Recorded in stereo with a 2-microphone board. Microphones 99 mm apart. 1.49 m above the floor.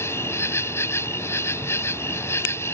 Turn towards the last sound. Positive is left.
turn(degrees=25)  # may be behind; listen again after turning